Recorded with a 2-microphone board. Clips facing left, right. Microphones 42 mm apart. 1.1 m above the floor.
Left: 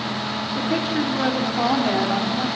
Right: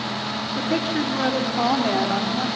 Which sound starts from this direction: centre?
A woman speaking, at 0.6 s.